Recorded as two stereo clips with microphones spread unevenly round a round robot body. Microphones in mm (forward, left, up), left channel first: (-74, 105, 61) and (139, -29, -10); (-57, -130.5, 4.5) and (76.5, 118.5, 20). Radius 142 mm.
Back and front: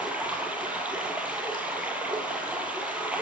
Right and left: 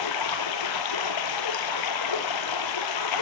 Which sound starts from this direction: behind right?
Running water, at 0.0 s.